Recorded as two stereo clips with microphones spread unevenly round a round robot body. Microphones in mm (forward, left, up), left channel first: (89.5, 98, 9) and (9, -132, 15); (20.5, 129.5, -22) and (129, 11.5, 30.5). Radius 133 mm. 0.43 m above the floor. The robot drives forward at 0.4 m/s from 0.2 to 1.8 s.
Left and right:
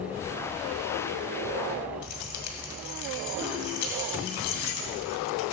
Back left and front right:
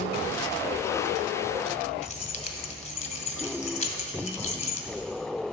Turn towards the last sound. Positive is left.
turn(degrees=90)